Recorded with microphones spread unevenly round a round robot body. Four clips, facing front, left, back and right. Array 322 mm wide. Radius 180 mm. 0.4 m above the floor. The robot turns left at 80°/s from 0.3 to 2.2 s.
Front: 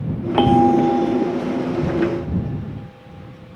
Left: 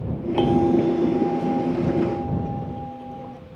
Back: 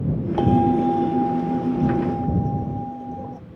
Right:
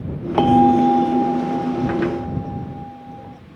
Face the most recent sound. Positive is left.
turn(degrees=170)